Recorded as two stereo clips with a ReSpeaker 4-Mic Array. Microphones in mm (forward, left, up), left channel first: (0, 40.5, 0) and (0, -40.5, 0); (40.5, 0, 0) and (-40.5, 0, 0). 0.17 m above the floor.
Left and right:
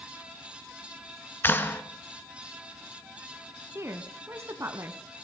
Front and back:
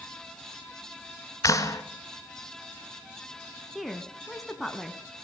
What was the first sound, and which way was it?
A clap, 35° left.